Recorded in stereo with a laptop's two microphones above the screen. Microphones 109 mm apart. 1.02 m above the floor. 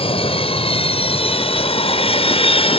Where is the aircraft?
70° left (ahead or behind).